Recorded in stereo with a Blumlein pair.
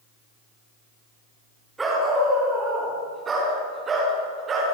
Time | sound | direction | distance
1.8 | a dog barking | 10° right | 5 m